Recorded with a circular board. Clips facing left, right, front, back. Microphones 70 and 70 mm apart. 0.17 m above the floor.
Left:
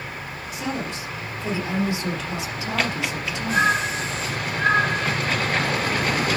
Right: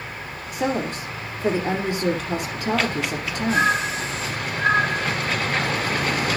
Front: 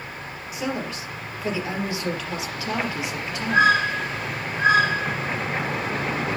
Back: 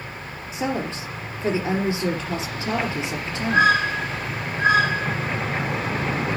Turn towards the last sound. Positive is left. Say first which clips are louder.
# right 5 dB, back 3 dB
turn(degrees=-120)